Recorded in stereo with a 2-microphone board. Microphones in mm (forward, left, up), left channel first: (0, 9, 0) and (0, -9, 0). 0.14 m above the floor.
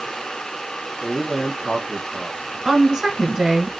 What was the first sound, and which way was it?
A man speaking, 30° left (ahead or behind).